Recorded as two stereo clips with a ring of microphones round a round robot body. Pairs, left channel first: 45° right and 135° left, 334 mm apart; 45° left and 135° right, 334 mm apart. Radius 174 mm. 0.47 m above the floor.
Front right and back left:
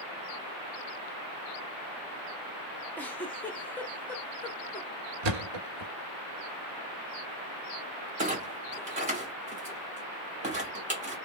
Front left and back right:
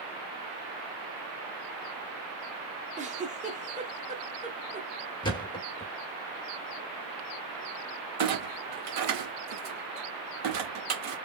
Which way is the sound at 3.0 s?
120° right.